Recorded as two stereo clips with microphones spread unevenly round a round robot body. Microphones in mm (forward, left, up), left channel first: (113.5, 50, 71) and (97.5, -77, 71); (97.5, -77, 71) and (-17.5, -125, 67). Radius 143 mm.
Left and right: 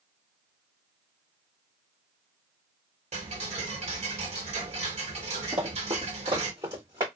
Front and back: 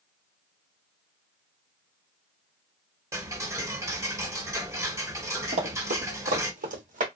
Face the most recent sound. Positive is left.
turn(degrees=-175)